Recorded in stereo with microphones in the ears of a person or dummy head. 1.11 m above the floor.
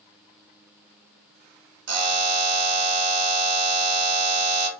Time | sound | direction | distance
1.9 | a buzzer | 75° right (ahead or behind) | 1.0 m